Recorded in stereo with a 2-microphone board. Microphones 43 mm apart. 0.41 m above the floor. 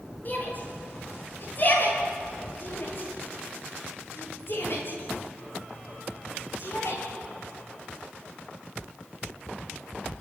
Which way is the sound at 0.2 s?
40° left (ahead or behind).